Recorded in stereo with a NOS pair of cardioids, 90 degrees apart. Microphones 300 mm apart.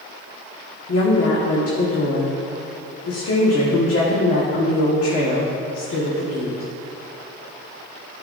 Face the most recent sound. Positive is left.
turn(degrees=50)